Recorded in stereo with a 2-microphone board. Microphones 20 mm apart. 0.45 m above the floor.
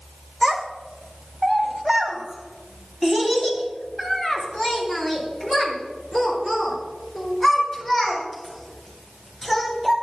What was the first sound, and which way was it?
A child speaking, 35° right (ahead or behind).